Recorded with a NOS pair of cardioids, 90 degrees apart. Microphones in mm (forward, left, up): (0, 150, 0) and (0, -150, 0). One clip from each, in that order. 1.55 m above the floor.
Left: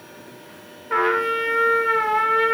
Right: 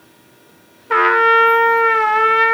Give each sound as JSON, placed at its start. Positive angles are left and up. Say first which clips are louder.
{"t": 0.9, "sound": "a trumpet", "louder": "right 8 dB", "azimuth_deg": -50, "distance_m": 1.2}